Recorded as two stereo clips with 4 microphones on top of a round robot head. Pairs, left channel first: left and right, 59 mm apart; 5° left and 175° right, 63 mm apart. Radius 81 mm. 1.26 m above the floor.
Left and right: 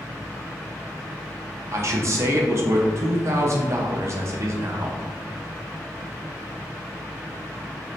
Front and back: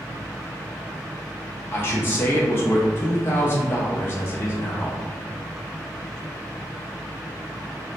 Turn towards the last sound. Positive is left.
turn(degrees=-50)